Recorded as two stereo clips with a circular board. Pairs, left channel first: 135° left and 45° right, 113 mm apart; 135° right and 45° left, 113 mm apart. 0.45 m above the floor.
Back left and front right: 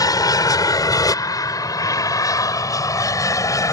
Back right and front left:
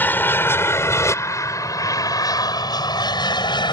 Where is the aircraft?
160° left; by 3.7 s 170° right.